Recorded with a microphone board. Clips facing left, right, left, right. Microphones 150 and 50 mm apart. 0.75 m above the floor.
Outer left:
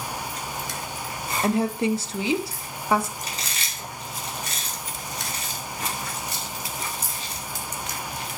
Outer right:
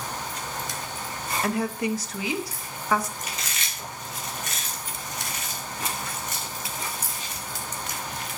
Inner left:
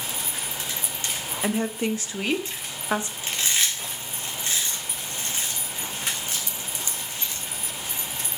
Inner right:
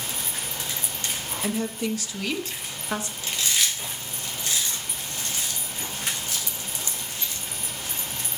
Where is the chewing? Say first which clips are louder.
Outer left 1 dB, even; 35° left (ahead or behind), 2.5 m.